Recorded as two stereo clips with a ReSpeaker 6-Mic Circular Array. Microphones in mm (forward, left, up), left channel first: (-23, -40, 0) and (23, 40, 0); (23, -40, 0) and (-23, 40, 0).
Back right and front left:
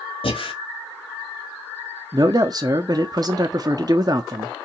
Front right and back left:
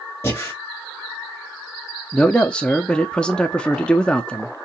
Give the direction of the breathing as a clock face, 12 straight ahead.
4 o'clock.